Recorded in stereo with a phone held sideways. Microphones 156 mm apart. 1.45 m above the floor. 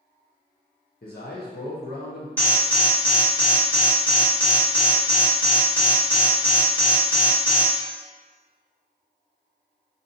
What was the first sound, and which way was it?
A man speaking, 70° left (ahead or behind).